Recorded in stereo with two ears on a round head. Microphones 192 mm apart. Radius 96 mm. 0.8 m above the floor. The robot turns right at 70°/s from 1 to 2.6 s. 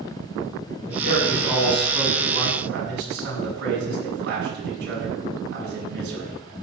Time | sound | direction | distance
0.8 | a man speaking | 125° left | 6.5 m